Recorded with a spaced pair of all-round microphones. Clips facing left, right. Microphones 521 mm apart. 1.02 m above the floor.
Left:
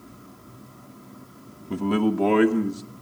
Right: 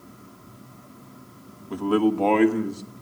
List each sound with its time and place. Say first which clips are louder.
1.7 s a man speaking: right 2 dB; 50° left (ahead or behind), 1.4 m; by 2.8 s 25° left (ahead or behind), 2 m